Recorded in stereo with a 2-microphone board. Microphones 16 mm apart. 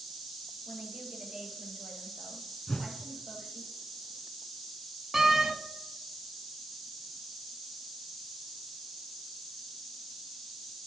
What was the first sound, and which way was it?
A woman speaking, 45° right (ahead or behind).